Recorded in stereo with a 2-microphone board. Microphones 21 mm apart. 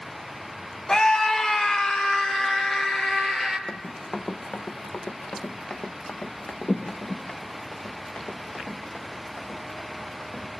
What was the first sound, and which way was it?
A scream, 30° left (ahead or behind).